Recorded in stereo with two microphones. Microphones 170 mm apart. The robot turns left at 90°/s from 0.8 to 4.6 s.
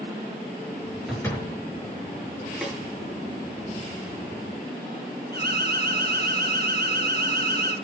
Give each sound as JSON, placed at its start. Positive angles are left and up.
{"t": 1.1, "sound": "a door slam", "azimuth_deg": -175, "distance_m": 6.5}
{"t": 2.6, "sound": "a snare drum", "side_deg": 0, "distance_m": 4.5}
{"t": 5.3, "sound": "an alarm", "side_deg": -70, "distance_m": 4.0}